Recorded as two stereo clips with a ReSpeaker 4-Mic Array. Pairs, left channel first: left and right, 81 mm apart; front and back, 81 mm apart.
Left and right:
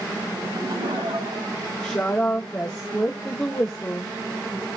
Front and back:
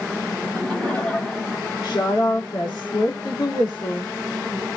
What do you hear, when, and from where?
0.4 s laughter: 80° right, 8.5 m
1.8 s a woman speaking: 10° left, 2.5 m